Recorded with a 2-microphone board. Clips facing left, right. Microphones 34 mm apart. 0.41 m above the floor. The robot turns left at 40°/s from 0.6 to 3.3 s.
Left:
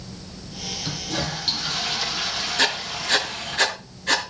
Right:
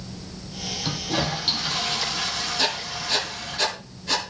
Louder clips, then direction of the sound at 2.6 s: Left 5 dB; 70° left (ahead or behind).